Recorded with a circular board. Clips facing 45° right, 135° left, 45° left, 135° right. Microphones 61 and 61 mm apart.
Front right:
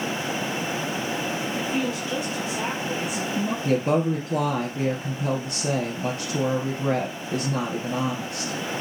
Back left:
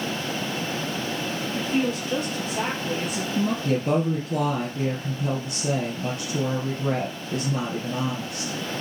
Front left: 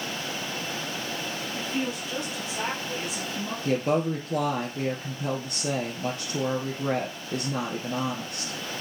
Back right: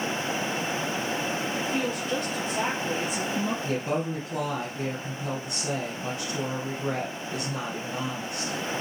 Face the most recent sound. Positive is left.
turn(degrees=5)